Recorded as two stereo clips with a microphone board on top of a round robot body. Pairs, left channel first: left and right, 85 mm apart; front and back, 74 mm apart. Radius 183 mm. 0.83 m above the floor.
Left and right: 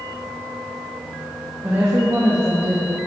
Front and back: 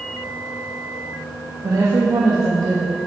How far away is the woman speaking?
About 1.5 m.